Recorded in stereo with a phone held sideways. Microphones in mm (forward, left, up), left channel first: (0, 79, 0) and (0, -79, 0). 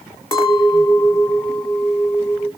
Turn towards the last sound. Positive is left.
turn(degrees=20)  # may be behind; listen again after turning